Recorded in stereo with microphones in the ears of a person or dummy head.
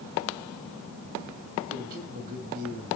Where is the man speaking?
45° right (ahead or behind), 3 m.